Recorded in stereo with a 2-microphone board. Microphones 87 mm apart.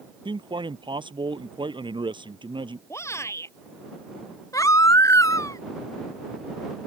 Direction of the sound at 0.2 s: 70° right (ahead or behind).